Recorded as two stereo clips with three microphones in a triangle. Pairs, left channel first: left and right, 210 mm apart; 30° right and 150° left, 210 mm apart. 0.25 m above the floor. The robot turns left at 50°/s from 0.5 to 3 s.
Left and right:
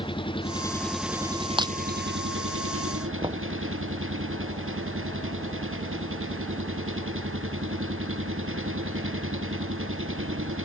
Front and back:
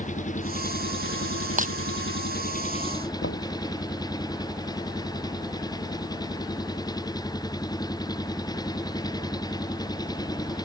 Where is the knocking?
25° right.